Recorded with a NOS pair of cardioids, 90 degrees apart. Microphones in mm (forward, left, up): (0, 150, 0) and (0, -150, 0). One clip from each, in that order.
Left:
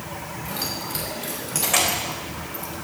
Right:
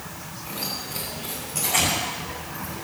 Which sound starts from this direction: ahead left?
Keys jangling, at 0.5 s.